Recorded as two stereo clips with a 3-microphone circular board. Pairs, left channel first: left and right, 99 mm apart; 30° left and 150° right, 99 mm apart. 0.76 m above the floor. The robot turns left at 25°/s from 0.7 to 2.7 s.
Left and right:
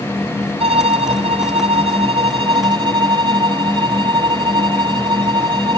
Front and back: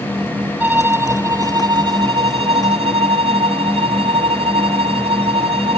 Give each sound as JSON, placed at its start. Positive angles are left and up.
{"t": 0.6, "sound": "a violin", "azimuth_deg": -80}